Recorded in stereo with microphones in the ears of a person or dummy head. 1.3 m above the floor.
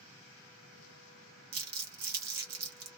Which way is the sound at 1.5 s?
55° right (ahead or behind).